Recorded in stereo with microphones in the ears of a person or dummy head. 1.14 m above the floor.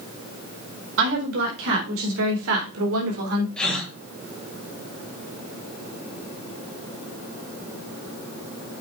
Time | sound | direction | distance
1.0 | a woman speaking | 70° right (ahead or behind) | 4 m
3.6 | a gasp | 5° left (ahead or behind) | 3 m